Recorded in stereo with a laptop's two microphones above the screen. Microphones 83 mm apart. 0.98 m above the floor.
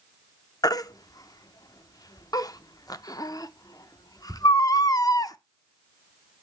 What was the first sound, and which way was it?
A baby crying, 45° left (ahead or behind).